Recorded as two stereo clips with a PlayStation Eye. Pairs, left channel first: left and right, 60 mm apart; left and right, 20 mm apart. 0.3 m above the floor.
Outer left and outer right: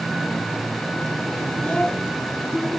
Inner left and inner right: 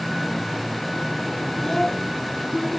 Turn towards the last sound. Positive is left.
turn(degrees=15)  # may be behind; listen again after turning